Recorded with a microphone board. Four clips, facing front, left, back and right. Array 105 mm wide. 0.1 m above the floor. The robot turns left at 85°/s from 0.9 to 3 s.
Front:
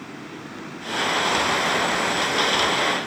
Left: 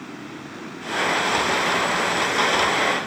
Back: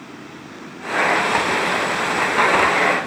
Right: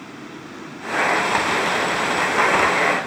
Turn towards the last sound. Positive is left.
No sound to turn to.